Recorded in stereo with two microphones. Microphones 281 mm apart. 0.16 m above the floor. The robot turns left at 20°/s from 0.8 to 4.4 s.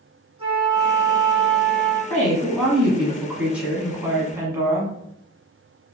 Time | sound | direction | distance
0.4 | a flute | 20° right (ahead or behind) | 1.6 m
2.1 | a woman speaking | 5° left (ahead or behind) | 1.3 m